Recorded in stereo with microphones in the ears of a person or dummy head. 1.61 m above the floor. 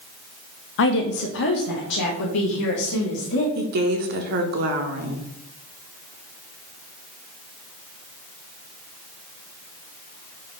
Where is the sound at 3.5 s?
55° right (ahead or behind), 1.5 m.